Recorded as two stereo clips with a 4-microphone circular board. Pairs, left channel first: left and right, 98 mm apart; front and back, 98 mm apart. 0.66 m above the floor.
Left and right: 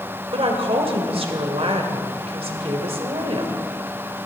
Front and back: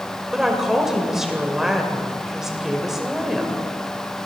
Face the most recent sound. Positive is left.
turn(degrees=-95)